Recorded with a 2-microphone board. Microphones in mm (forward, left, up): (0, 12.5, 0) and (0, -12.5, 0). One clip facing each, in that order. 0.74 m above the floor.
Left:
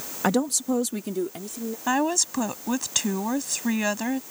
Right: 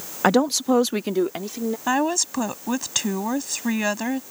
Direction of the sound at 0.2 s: 20° right (ahead or behind).